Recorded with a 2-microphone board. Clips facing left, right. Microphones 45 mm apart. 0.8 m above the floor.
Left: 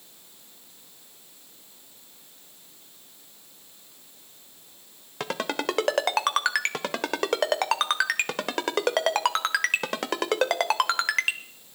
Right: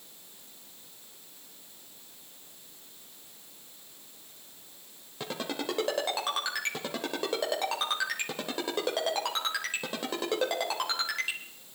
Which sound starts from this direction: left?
A ringtone, at 5.2 s.